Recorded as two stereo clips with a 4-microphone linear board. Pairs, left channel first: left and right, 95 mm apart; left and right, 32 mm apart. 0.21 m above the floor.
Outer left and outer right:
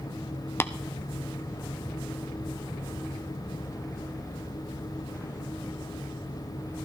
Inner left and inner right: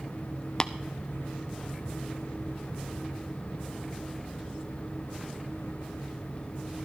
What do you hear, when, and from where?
0.6 s tapping: 25° left (ahead or behind), 0.5 m